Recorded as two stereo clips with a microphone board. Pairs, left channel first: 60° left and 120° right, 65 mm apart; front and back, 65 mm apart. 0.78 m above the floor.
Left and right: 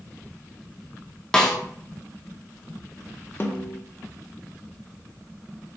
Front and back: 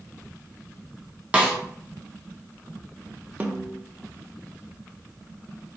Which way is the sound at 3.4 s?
115° left.